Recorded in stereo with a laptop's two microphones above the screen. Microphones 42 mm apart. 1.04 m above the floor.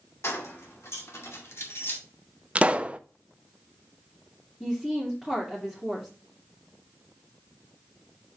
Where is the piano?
No piano in this recording.